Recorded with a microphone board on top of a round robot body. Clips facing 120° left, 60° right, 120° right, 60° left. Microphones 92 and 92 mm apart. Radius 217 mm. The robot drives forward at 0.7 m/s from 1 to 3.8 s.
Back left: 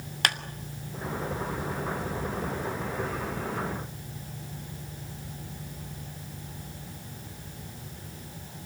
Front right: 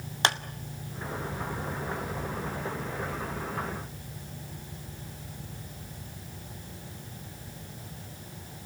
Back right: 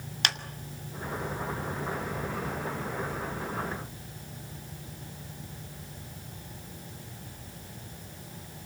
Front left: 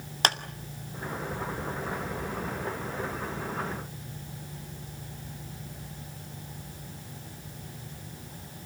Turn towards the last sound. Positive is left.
turn(degrees=105)